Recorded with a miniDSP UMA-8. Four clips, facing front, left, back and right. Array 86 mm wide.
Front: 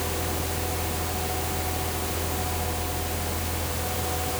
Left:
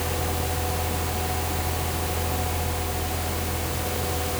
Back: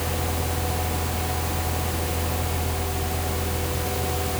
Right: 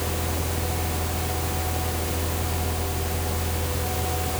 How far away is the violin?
I don't hear a violin.